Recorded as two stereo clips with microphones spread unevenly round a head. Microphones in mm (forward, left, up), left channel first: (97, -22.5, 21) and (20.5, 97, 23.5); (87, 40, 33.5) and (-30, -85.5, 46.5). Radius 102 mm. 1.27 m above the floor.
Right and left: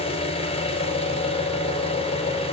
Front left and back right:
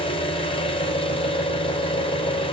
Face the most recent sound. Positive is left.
turn(degrees=-10)